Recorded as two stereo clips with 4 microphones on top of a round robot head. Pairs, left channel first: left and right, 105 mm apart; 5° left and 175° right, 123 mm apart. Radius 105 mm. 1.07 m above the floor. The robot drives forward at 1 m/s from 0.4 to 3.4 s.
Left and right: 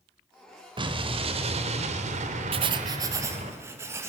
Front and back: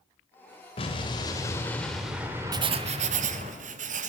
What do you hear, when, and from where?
0.8 s an explosion: 50° right, 2 m; by 3.5 s 130° right, 2 m
2.5 s writing: 115° right, 0.6 m; by 4.1 s 160° right, 1.2 m